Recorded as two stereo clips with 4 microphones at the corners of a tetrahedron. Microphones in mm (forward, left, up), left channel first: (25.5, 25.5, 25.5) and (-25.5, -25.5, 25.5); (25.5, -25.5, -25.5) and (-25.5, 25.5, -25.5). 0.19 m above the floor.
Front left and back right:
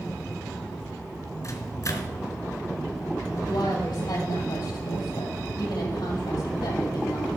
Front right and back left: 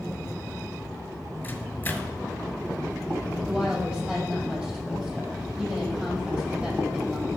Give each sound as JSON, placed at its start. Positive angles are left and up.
{"t": 1.4, "sound": "a microwave", "azimuth_deg": 15, "distance_m": 1.7}
{"t": 3.5, "sound": "a woman speaking", "azimuth_deg": 60, "distance_m": 6.5}